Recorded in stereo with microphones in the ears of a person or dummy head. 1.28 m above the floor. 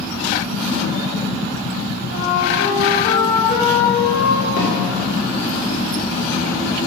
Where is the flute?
85° left, 3.5 m.